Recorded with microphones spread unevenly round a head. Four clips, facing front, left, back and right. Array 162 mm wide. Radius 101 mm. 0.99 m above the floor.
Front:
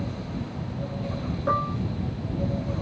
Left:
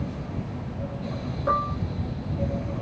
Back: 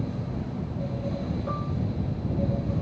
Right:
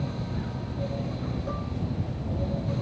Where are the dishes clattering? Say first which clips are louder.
Left 9 dB, front 6 dB; 45° left.